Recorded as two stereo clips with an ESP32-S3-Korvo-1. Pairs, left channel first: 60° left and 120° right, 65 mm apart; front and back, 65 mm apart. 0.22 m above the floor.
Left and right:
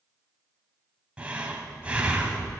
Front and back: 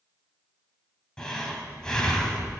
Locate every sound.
1.2 s breathing: 65° right, 1.5 m